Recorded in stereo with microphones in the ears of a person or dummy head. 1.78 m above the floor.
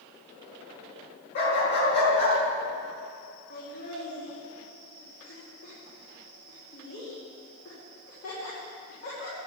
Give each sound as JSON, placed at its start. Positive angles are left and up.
{"t": 1.4, "sound": "a dog barking", "side_deg": 55, "distance_m": 5.5}
{"t": 3.5, "sound": "laughter", "side_deg": 65, "distance_m": 6.5}